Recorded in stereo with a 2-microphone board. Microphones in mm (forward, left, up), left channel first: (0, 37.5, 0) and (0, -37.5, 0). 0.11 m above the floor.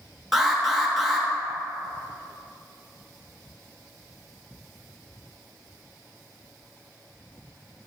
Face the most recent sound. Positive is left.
turn(degrees=0)  # may be behind; listen again after turning